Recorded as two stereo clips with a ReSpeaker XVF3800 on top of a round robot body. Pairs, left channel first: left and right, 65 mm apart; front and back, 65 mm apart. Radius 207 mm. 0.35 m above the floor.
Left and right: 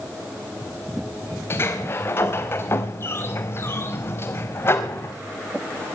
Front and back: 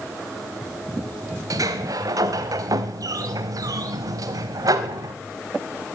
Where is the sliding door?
145° left, 0.5 m.